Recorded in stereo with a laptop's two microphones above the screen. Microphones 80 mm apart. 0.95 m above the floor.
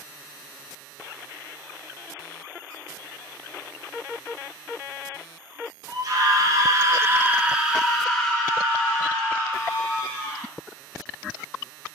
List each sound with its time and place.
5.9 s a scream: 50° right (ahead or behind), 1.0 m; by 10.5 s 25° left (ahead or behind), 2 m